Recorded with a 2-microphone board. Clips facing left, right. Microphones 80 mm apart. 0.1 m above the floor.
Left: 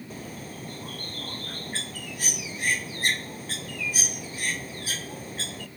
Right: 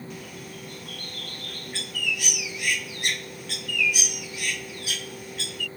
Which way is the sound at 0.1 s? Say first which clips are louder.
Left 1 dB; 35° left (ahead or behind).